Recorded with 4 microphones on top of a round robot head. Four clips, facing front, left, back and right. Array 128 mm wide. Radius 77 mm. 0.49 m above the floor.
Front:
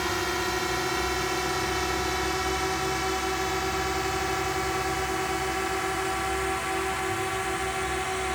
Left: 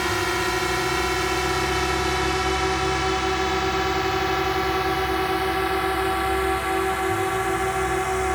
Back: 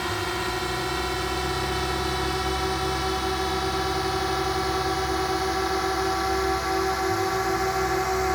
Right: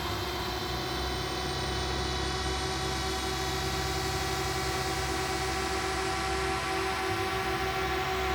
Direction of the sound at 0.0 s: 90° left.